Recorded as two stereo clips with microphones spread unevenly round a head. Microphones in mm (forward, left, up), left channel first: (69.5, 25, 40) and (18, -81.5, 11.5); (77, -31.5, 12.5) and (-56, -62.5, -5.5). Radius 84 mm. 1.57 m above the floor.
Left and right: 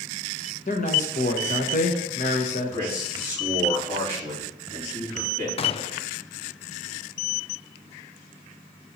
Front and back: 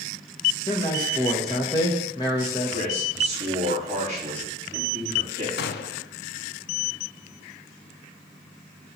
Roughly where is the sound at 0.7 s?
Left.